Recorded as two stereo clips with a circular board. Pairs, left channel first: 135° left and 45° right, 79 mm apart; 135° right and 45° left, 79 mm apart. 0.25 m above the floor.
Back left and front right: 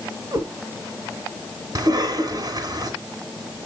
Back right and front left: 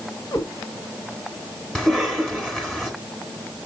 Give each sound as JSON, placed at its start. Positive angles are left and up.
{"t": 0.3, "sound": "a cat meowing", "azimuth_deg": -90, "distance_m": 2.0}
{"t": 1.8, "sound": "a cough", "azimuth_deg": -55, "distance_m": 2.5}